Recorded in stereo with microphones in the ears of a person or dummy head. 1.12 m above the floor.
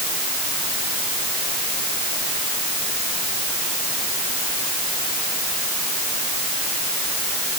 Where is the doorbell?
I don't hear a doorbell.